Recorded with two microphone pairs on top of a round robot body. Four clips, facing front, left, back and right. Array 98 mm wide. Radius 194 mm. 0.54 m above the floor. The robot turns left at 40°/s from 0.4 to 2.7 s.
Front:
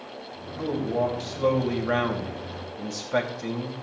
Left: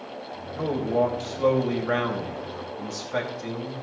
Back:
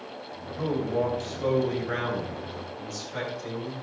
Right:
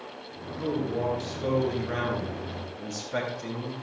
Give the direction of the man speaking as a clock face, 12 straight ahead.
9 o'clock.